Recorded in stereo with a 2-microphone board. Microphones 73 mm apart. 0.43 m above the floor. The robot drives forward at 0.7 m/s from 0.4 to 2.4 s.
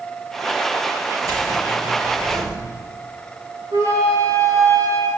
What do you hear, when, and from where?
1.2 s keys jangling: 55° right (ahead or behind), 5.5 m; by 2.6 s 45° right (ahead or behind), 6 m
3.7 s a flute: 50° right (ahead or behind), 3 m